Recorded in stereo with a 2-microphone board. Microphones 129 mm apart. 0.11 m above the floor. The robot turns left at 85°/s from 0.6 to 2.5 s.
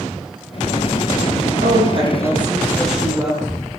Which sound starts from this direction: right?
A woman speaking, at 1.6 s.